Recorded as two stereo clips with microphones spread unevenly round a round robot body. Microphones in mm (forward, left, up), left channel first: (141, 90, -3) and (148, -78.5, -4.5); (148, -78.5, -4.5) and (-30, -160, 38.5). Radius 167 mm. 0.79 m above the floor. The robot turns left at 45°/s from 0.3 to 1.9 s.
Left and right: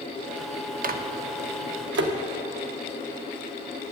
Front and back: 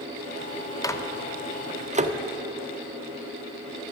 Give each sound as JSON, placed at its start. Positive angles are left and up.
{"t": 0.8, "sound": "a microwave", "azimuth_deg": -50, "distance_m": 0.9}